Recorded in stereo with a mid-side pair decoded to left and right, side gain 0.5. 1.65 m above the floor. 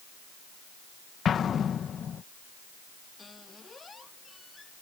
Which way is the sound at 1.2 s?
50° left.